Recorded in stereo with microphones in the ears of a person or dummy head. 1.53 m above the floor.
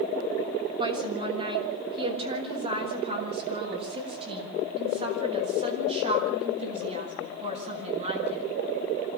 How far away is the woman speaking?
About 7 m.